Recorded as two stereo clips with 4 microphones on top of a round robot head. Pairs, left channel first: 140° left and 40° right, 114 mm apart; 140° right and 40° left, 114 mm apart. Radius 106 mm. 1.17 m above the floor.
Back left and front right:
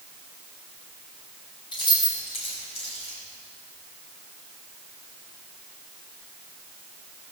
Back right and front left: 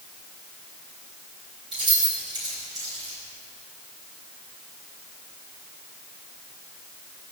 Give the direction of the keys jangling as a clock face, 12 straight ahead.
9 o'clock.